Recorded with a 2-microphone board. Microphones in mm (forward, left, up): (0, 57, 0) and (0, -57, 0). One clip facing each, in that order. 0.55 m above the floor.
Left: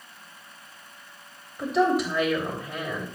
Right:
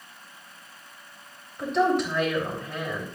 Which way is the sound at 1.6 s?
5° left (ahead or behind).